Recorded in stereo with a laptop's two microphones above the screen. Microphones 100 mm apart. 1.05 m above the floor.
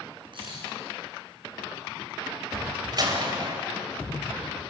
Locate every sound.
0.3 s a camera shutter: 55° right (ahead or behind), 8.5 m
2.9 s a door slam: 45° right (ahead or behind), 3 m